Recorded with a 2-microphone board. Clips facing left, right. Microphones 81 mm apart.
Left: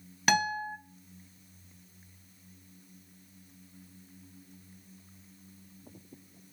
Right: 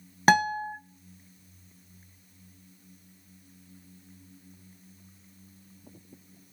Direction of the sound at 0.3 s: 35° right (ahead or behind).